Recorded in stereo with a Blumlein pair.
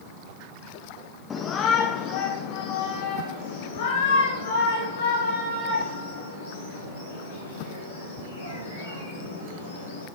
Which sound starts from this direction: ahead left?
A shout, at 1.3 s.